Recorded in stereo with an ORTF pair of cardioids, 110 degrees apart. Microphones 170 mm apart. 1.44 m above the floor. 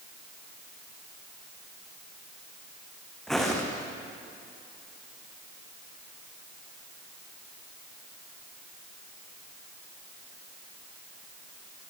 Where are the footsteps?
5° left, 4.5 m.